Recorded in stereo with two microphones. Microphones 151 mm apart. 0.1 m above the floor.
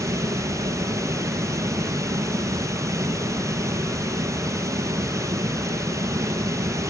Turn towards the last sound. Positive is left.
turn(degrees=-20)  # may be behind; listen again after turning